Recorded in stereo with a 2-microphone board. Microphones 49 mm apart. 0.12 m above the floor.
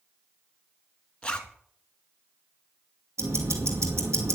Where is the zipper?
20° left (ahead or behind), 1.2 m.